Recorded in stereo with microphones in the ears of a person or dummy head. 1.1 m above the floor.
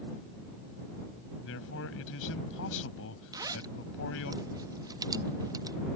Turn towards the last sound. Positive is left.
turn(degrees=-20)  # may be behind; listen again after turning